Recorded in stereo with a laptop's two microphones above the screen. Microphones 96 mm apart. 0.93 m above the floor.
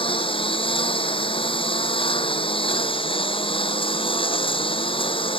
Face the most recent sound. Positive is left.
turn(degrees=70)  # may be behind; listen again after turning